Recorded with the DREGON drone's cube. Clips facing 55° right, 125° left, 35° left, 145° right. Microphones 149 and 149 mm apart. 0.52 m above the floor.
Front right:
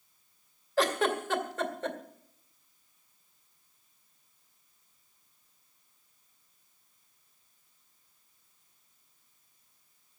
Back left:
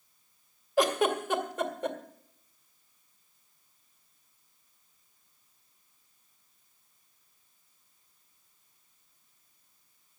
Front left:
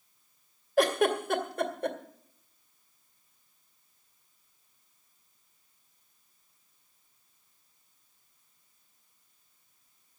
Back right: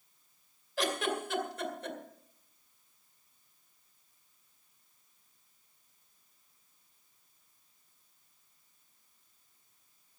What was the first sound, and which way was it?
A giggle, 55° left.